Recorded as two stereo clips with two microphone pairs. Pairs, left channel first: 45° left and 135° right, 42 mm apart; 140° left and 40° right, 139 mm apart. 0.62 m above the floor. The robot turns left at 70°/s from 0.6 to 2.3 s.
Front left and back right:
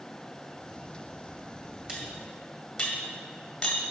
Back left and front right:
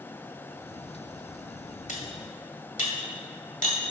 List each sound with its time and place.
1.9 s cutlery clinking: 155° left, 1.9 m; by 3.8 s 125° left, 1.9 m